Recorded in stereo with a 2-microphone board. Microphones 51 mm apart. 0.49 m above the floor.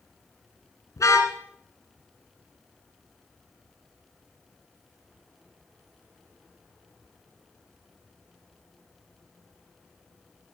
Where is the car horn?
85° left, 2 m.